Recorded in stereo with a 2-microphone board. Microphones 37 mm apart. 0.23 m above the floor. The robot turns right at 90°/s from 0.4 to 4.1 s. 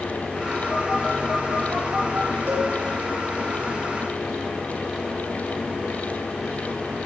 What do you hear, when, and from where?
0.7 s a phone buzzing: 20° left (ahead or behind), 3 m; by 2.3 s 55° right (ahead or behind), 3 m
2.5 s a cowbell: 70° right (ahead or behind), 4 m; by 2.7 s 55° right (ahead or behind), 4 m